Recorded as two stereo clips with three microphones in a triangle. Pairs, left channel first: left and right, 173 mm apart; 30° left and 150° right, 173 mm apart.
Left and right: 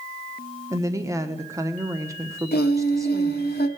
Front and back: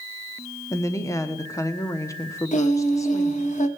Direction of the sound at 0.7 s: 30° right.